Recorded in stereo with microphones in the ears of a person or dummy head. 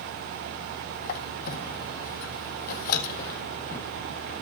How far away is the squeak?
About 1.4 m.